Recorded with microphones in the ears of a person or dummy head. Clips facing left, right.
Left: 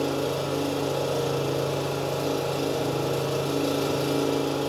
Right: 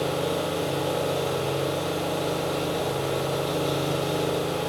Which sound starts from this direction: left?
An engine running, at 0.0 s.